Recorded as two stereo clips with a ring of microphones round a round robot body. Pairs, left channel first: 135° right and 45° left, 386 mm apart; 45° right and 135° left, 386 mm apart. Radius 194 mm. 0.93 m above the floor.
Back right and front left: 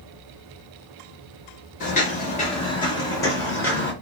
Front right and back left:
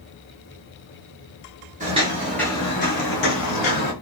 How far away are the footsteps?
About 0.9 m.